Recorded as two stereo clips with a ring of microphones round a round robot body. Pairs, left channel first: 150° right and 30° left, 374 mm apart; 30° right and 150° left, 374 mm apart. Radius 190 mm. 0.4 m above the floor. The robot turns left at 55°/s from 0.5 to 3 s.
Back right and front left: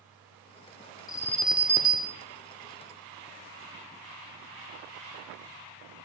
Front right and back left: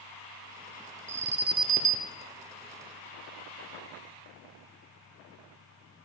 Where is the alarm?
140° left, 0.6 m; by 2.1 s 85° left, 0.6 m.